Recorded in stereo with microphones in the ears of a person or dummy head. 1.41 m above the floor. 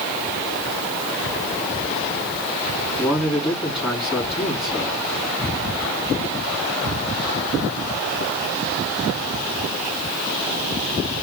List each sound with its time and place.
3.0 s a man speaking: 5° right (ahead or behind), 3.5 m